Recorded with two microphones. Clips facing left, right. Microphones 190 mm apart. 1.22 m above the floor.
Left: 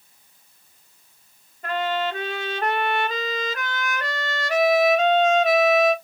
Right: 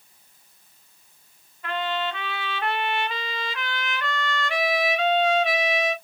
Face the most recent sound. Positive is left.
turn(degrees=45)  # may be behind; listen again after turning